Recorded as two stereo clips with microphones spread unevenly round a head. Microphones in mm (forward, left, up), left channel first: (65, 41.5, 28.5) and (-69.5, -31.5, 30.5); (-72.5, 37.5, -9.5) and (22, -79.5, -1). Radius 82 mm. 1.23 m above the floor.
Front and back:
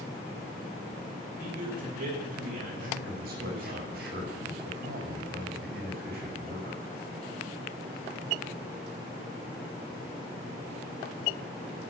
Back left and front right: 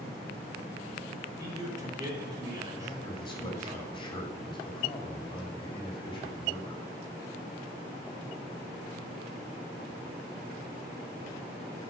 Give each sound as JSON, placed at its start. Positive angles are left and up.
{"t": 1.4, "sound": "a man speaking", "azimuth_deg": -115, "distance_m": 5.5}
{"t": 2.8, "sound": "a man speaking", "azimuth_deg": -170, "distance_m": 5.0}